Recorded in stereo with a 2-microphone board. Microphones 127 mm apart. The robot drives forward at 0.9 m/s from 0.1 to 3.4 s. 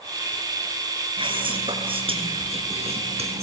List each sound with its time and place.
1.2 s whispering: 40° right (ahead or behind), 5.5 m; by 3.4 s 55° right (ahead or behind), 4.5 m